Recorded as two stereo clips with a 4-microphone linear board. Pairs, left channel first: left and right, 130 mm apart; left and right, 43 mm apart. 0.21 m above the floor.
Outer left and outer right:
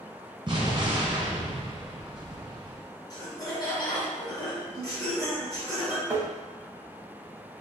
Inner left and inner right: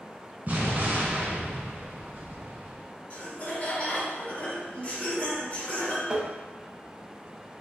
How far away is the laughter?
About 1.3 m.